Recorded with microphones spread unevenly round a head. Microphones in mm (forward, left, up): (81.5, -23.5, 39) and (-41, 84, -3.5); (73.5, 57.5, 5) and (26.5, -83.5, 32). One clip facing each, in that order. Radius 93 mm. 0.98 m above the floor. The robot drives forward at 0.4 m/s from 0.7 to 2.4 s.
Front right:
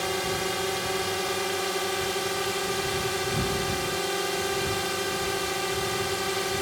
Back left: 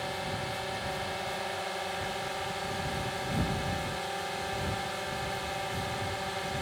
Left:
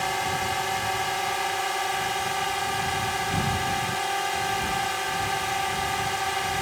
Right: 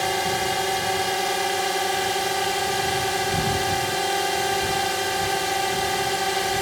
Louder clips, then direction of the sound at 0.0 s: Front right 7 dB, right 4 dB; 60° right.